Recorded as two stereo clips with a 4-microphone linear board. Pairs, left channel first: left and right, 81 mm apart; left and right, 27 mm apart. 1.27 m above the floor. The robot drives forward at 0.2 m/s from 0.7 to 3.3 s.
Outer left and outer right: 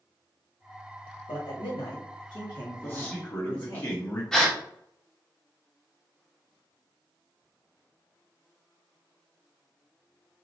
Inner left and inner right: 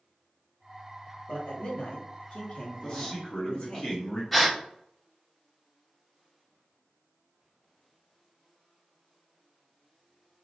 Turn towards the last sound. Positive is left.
turn(degrees=5)  # may be behind; listen again after turning